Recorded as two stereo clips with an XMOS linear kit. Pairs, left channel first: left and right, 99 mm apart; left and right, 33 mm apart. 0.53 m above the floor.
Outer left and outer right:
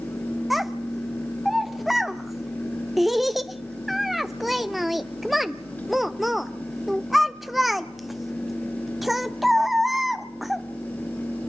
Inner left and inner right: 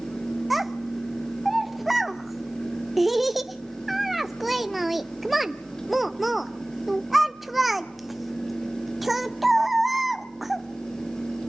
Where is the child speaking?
Centre (ahead or behind), 0.5 m.